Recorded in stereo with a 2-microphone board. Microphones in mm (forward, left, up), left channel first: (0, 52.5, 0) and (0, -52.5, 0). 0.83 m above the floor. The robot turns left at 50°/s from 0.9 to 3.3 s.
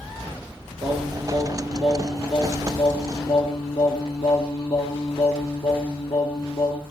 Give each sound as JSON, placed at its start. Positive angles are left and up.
{"t": 0.8, "sound": "singing", "azimuth_deg": -125, "distance_m": 4.0}